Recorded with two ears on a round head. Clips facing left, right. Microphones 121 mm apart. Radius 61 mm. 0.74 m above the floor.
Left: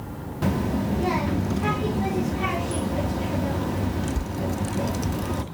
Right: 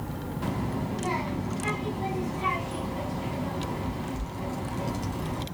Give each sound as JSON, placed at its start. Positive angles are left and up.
{"t": 0.4, "sound": "a child speaking", "side_deg": 75, "distance_m": 0.8}